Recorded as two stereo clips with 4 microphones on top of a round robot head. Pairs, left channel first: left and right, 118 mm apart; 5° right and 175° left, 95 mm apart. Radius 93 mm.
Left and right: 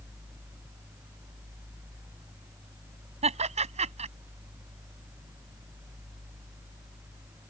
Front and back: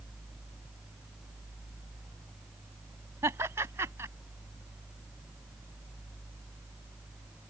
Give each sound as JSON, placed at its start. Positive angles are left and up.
{"t": 3.2, "sound": "laughter", "azimuth_deg": -115}